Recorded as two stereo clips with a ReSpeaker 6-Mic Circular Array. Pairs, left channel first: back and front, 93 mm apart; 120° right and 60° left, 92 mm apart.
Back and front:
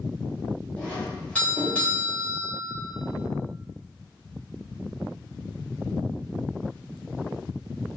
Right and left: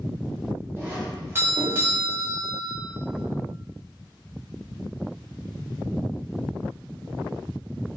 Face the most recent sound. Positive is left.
turn(degrees=110)